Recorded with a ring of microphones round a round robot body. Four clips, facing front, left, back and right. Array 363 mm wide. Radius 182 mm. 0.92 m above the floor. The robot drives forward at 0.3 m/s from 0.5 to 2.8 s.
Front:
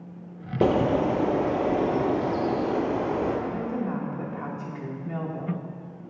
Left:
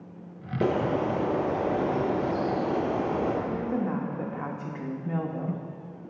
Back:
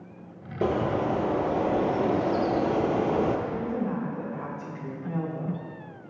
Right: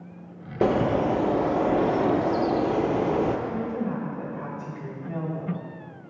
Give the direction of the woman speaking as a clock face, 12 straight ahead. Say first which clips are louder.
Even, even; 9 o'clock.